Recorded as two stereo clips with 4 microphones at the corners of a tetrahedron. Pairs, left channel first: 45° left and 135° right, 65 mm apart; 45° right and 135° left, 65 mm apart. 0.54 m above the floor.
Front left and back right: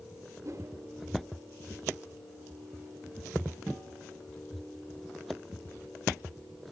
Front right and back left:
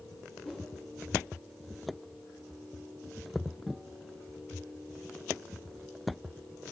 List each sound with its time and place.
0.4 s a whoosh: 120° right, 1.5 m